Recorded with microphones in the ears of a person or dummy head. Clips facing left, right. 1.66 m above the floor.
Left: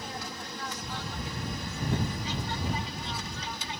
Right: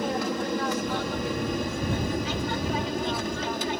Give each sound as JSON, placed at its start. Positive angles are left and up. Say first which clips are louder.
{"t": 0.0, "sound": "an aircraft", "louder": "right 13 dB", "side_deg": -50}